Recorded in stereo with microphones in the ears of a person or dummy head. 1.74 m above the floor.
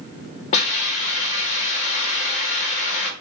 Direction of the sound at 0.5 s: 40° left (ahead or behind).